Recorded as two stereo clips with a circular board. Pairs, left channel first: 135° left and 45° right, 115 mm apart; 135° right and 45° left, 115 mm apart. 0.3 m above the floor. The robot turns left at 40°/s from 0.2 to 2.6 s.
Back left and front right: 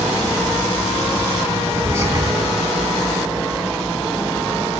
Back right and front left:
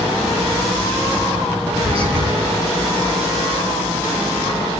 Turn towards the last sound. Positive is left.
turn(degrees=-10)